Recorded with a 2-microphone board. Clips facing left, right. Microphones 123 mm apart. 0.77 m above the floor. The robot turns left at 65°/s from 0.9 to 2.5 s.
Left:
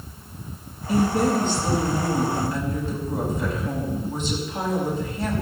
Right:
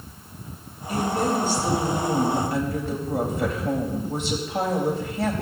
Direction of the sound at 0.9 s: 30° left.